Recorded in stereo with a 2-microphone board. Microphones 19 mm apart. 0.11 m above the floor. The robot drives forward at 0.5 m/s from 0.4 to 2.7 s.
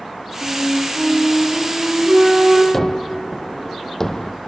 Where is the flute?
60° right (ahead or behind), 8.5 m; by 2.6 s 55° right (ahead or behind), 9.5 m.